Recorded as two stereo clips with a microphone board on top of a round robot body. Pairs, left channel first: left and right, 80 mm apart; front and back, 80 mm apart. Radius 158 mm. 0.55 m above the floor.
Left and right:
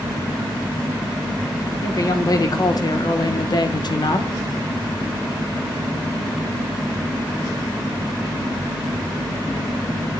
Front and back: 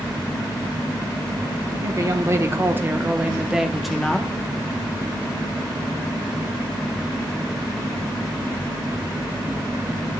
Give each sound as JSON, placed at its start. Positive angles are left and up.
{"t": 1.7, "sound": "a woman speaking", "azimuth_deg": 135, "distance_m": 2.0}